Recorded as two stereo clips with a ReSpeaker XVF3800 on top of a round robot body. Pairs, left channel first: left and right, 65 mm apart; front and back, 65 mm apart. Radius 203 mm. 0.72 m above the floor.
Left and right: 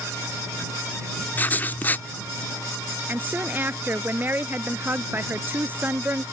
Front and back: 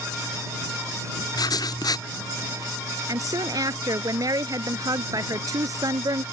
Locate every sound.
1.4 s writing: 30° left
3.1 s a woman speaking: 150° right